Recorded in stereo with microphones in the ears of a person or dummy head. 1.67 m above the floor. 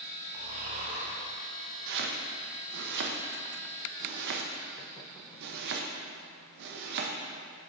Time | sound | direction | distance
0.3 | snoring | 40° right (ahead or behind) | 1.2 m
1.9 | chopping | 55° right (ahead or behind) | 0.8 m